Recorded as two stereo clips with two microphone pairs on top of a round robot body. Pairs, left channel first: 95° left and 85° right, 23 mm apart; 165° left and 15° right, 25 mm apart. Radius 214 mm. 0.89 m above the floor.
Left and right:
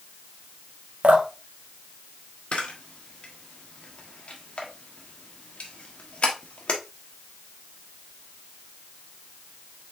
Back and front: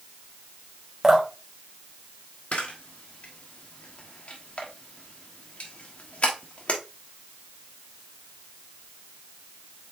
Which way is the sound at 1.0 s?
90° right.